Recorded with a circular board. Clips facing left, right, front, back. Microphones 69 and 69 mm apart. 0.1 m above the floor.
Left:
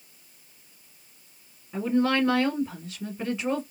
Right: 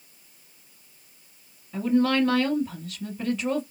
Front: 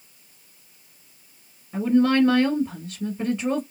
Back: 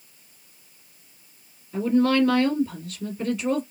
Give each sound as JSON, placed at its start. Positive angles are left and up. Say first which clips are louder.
{"t": 1.7, "sound": "a woman speaking", "louder": "right 2 dB, front 1 dB", "azimuth_deg": 35, "distance_m": 1.9}